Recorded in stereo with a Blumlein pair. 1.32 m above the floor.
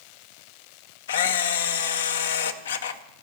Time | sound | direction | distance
1.1 | a camera shutter | 60° left | 0.5 m